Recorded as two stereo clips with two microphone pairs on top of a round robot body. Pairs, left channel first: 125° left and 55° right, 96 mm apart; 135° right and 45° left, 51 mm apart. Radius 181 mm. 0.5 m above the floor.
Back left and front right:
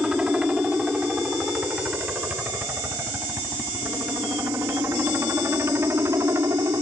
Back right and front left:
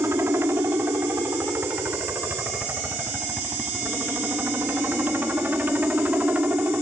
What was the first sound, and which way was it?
A helicopter, 30° left.